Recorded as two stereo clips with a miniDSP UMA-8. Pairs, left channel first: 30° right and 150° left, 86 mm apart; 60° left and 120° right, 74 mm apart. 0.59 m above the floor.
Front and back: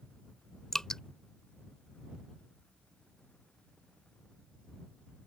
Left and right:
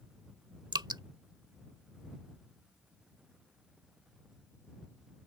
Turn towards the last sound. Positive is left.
turn(degrees=-115)